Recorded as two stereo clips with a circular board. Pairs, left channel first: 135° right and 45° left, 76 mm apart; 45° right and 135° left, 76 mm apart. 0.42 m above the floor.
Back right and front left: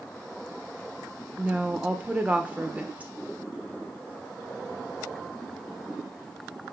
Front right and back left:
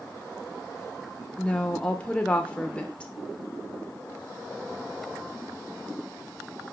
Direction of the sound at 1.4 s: 5° left.